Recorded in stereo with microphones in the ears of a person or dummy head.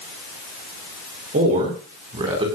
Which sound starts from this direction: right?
A man speaking, at 1.3 s.